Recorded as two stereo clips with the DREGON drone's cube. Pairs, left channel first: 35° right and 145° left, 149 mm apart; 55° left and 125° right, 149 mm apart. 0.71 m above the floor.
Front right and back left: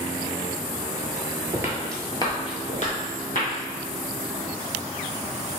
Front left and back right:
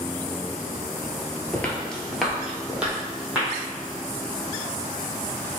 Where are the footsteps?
120° left, 0.7 m; by 3.5 s 45° right, 1.6 m.